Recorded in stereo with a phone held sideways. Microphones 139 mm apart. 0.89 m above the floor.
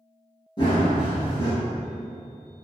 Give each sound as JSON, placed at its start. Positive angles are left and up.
{"t": 0.6, "sound": "running footsteps", "side_deg": 35, "distance_m": 1.0}